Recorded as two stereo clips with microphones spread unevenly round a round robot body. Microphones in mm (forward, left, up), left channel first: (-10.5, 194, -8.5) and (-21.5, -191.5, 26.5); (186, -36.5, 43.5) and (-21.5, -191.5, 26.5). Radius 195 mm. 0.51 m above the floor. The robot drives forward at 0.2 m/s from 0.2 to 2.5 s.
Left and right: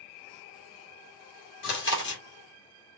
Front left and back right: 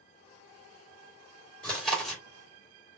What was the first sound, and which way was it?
Chewing, 125° left.